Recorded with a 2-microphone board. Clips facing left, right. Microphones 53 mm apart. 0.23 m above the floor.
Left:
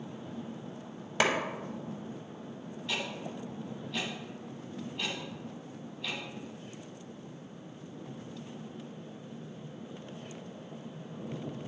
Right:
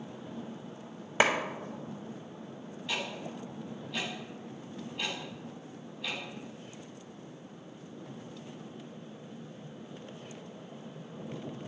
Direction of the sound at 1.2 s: 20° right (ahead or behind).